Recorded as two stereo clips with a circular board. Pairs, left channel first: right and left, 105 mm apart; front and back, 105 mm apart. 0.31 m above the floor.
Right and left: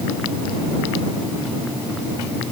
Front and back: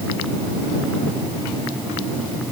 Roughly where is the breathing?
No breathing in this recording.